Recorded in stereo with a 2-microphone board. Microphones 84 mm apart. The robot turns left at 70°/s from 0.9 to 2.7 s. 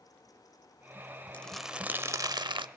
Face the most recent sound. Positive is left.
turn(degrees=-75)